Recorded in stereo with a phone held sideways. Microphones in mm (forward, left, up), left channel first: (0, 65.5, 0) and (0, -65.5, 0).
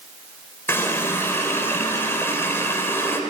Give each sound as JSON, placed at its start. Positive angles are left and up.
{"t": 0.7, "sound": "a running tap", "side_deg": 20, "distance_m": 3.0}